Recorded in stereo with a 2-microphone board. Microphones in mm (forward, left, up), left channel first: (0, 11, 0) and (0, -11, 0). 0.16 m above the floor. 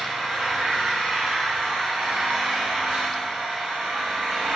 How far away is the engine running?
About 8.5 m.